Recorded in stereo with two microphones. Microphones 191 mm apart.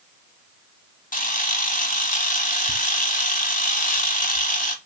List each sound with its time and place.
1.1 s a camera shutter: 50° left (ahead or behind), 1.0 m